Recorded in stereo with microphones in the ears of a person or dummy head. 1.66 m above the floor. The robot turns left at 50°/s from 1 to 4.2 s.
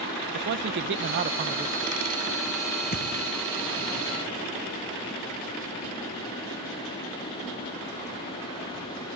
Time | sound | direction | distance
0.3 | a man speaking | 120° right | ?
2.9 | a thud | 45° left (ahead or behind) | ?